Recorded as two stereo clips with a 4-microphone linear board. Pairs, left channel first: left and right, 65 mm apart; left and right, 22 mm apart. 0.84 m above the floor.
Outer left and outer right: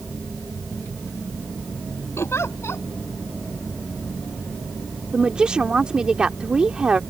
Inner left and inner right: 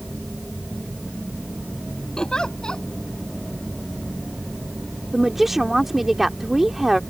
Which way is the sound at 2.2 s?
45° left (ahead or behind).